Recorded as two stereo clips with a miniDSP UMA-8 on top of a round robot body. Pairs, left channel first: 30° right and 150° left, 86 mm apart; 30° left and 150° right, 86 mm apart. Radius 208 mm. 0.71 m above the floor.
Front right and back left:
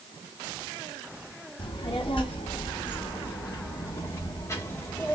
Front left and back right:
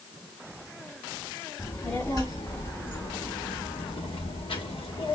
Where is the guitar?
I don't hear a guitar.